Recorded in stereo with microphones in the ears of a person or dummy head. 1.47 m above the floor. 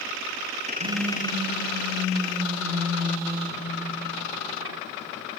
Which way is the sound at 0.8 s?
90° right.